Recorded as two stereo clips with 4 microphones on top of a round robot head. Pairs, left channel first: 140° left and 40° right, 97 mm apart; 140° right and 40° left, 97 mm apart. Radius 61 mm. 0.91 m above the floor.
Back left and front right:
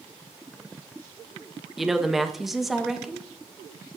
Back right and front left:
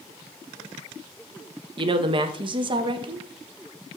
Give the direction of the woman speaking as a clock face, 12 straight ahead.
10 o'clock.